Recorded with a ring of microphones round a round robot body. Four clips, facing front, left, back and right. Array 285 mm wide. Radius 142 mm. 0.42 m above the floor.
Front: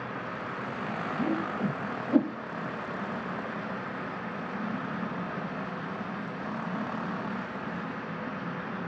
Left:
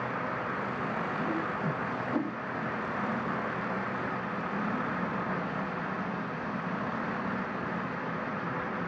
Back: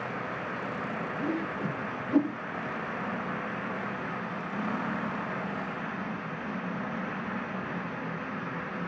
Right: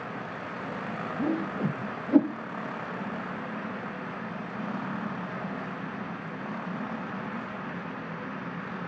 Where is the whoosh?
75° right, 1.6 m.